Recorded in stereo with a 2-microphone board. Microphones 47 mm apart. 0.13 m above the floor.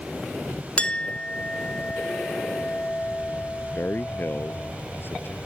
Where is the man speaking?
50° left (ahead or behind).